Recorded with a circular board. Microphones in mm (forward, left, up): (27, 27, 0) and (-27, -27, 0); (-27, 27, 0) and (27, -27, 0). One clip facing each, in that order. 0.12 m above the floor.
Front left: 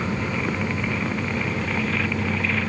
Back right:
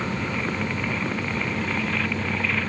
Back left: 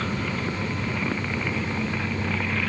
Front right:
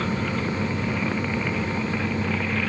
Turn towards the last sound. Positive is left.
No sound to turn to.